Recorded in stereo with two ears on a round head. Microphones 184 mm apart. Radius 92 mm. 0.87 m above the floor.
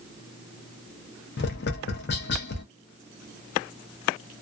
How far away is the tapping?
About 0.7 m.